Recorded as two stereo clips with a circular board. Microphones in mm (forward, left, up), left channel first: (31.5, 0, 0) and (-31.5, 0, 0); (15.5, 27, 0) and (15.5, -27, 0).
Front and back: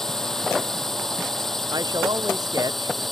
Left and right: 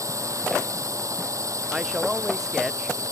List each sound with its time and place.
0.0 s a drone: 85° right
1.7 s a man speaking: 175° right